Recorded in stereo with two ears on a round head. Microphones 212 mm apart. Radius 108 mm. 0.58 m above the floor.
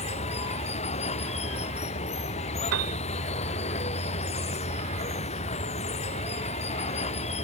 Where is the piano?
70° right (ahead or behind).